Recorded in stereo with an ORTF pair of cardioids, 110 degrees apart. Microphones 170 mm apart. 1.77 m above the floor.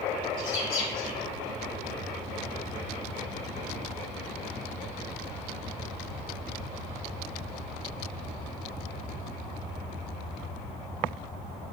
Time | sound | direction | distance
0.4 | a bird | 70° left | 1.6 m